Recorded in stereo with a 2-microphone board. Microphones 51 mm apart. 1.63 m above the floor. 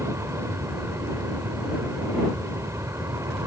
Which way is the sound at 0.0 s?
65° right (ahead or behind).